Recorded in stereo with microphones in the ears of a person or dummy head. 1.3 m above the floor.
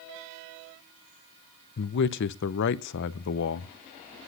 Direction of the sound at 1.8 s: 60° left (ahead or behind).